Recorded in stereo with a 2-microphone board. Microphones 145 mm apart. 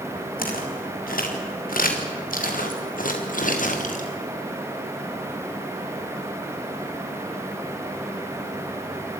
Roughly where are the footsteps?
Left.